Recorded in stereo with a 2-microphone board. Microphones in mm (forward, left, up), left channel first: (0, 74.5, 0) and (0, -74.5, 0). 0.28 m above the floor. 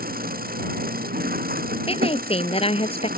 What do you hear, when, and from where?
0.0 s an engine running: 85° right
1.9 s a woman speaking: 40° left (ahead or behind)